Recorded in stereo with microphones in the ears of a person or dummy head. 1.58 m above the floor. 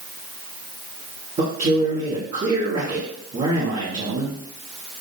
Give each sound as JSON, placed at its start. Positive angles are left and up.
{"t": 1.4, "sound": "a man speaking", "side_deg": -35, "distance_m": 1.3}